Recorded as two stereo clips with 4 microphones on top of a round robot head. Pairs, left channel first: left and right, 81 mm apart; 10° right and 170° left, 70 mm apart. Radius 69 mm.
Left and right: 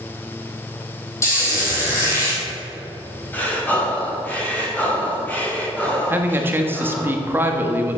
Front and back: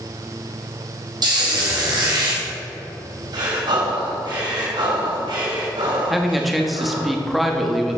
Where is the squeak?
145° left, 3 m.